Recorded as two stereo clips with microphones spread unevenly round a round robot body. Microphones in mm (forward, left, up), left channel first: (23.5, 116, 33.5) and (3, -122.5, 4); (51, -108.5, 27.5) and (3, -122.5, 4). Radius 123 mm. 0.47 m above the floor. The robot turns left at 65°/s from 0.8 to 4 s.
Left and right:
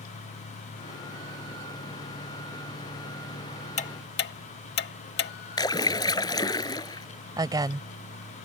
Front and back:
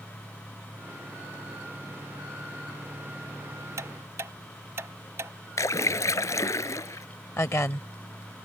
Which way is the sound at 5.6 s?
10° left.